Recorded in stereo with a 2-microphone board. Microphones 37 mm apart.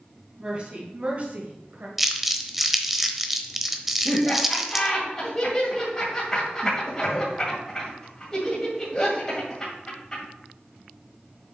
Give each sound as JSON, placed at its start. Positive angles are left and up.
{"t": 0.4, "sound": "a woman speaking", "side_deg": -30, "distance_m": 2.5}
{"t": 2.0, "sound": "crumpling", "side_deg": -5, "distance_m": 0.8}
{"t": 4.0, "sound": "laughter", "side_deg": 20, "distance_m": 2.0}